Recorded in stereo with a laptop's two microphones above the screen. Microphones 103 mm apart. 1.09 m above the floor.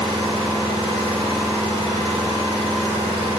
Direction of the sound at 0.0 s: 75° right (ahead or behind).